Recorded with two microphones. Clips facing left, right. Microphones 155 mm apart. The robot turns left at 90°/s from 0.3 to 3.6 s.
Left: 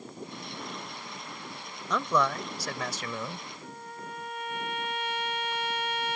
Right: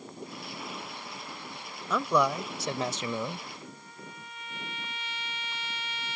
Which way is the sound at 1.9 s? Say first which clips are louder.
Right 1 dB; 5° right (ahead or behind).